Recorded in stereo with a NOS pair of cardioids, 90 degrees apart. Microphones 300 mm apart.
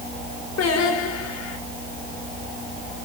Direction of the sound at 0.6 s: 55° left.